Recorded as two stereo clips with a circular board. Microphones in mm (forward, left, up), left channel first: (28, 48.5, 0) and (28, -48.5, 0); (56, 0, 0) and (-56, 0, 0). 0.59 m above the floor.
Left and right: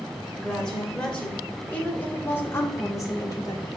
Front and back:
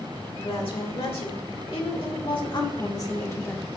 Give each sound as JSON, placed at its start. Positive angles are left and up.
{"t": 0.4, "sound": "a woman speaking", "azimuth_deg": 5, "distance_m": 2.5}